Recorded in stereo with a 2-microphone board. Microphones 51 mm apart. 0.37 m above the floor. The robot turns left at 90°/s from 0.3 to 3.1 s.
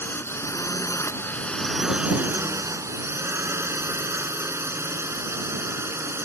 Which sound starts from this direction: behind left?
A drone, at 0.0 s.